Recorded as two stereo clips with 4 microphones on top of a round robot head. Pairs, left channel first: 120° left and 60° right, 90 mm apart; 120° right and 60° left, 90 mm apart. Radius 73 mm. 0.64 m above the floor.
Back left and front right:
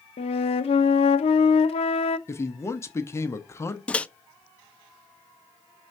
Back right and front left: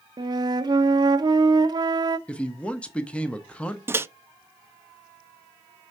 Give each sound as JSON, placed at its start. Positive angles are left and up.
{"t": 0.2, "sound": "a flute", "azimuth_deg": 105, "distance_m": 0.6}
{"t": 2.3, "sound": "a man speaking", "azimuth_deg": 165, "distance_m": 0.9}
{"t": 3.9, "sound": "a microwave", "azimuth_deg": 60, "distance_m": 0.6}